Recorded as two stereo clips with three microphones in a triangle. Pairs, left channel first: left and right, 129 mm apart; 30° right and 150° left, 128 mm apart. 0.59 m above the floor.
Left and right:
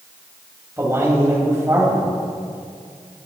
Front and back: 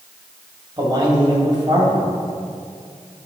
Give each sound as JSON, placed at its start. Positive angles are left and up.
{"t": 0.8, "sound": "a man speaking", "azimuth_deg": -160, "distance_m": 3.0}